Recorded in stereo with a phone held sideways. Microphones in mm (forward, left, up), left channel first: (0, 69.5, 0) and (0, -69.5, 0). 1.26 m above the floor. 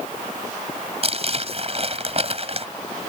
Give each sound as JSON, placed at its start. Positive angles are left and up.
{"t": 1.0, "sound": "crumpling", "side_deg": -45}